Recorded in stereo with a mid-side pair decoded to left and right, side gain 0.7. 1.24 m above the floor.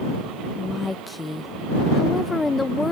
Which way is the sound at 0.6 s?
15° left.